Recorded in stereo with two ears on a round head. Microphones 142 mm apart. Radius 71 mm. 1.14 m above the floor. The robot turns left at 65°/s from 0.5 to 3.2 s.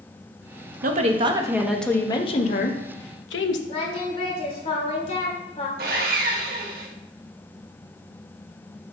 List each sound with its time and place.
0.8 s a woman speaking: 120° right, 1.1 m; by 3.6 s 85° left, 1.1 m
3.7 s singing: 40° left (ahead or behind), 1.5 m
5.8 s sawing: 65° right (ahead or behind), 1.5 m